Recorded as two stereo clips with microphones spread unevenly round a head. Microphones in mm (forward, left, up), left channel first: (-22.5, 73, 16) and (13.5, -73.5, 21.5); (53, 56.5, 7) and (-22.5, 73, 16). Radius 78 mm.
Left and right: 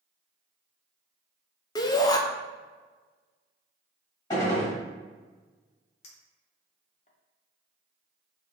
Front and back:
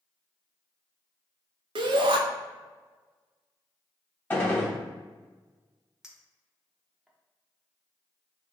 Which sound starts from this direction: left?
A clink, at 6.0 s.